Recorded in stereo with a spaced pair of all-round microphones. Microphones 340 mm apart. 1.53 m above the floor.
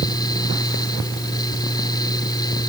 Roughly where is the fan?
Centre.